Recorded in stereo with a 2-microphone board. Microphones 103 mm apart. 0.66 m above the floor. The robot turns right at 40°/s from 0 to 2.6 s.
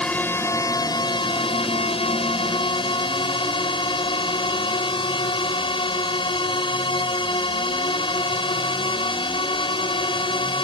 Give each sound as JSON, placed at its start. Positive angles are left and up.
{"t": 0.0, "sound": "a drone", "azimuth_deg": 10}